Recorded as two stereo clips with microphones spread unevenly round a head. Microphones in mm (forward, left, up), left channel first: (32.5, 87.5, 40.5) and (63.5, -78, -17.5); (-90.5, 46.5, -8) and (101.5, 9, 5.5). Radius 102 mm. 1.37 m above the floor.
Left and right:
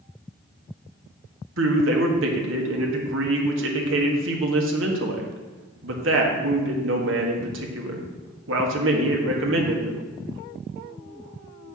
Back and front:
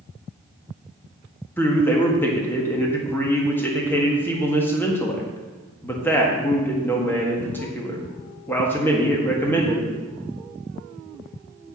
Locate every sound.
1.6 s a man speaking: 110° right, 1.6 m